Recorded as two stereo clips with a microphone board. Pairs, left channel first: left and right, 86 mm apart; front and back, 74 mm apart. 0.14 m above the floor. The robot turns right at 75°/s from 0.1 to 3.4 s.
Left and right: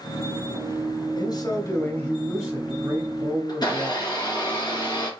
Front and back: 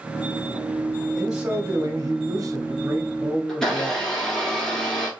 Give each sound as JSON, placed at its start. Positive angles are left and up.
{"t": 1.1, "sound": "a man speaking", "azimuth_deg": 90, "distance_m": 1.8}
{"t": 3.5, "sound": "a blender", "azimuth_deg": 85, "distance_m": 2.5}